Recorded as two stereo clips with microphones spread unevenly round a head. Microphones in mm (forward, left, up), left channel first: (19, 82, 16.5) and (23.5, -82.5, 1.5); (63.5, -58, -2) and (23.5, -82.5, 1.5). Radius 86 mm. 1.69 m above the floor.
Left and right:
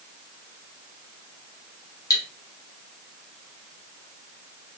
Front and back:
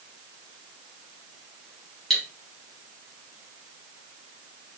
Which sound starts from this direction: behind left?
Cutlery clinking, at 2.1 s.